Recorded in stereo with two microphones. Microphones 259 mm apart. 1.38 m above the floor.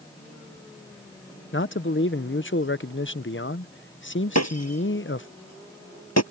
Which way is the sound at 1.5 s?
50° left (ahead or behind).